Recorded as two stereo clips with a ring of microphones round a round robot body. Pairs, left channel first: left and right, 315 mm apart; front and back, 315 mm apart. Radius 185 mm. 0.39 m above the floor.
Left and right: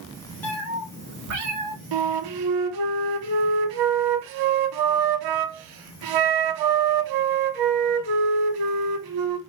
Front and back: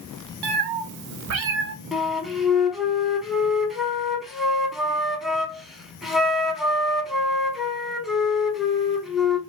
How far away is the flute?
About 0.6 m.